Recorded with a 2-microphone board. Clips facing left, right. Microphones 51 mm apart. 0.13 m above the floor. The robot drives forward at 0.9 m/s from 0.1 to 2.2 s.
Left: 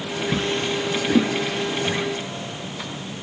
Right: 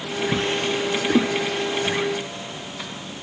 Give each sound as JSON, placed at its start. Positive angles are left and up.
{"t": 0.3, "sound": "a drawer", "side_deg": -30, "distance_m": 0.8}